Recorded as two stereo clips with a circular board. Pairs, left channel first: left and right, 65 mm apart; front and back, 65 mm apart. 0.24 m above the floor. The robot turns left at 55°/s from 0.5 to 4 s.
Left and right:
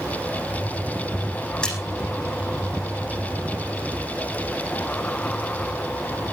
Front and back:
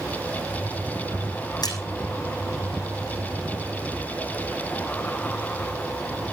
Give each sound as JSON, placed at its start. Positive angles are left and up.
{"t": 1.6, "sound": "a splash", "azimuth_deg": 10, "distance_m": 6.5}